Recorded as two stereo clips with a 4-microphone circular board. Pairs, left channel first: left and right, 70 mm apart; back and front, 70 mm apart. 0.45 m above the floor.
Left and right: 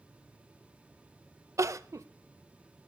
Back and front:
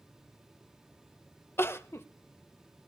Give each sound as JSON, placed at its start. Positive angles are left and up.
{"t": 1.6, "sound": "crying", "azimuth_deg": -130, "distance_m": 0.6}